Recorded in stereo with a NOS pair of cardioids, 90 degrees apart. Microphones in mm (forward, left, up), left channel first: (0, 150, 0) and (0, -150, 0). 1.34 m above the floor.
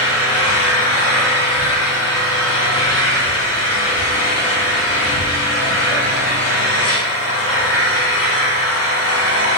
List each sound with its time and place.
0.0 s an engine running: 55° left, 4.5 m